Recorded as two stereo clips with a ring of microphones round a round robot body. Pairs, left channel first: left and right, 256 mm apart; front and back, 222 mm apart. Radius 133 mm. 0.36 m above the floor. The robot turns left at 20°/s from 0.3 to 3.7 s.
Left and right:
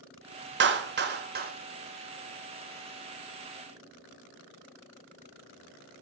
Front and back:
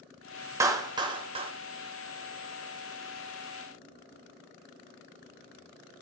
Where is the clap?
110° right, 1.0 m; by 1.5 s 125° right, 1.0 m.